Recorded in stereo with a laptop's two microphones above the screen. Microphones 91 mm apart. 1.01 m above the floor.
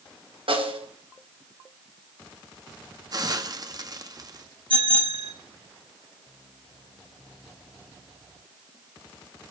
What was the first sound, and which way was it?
A snare drum, 80° right.